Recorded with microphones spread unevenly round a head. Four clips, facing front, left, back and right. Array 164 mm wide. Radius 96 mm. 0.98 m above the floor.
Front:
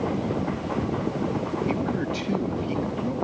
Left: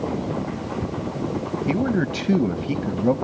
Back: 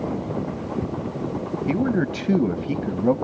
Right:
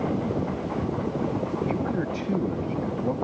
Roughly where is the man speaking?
Behind left.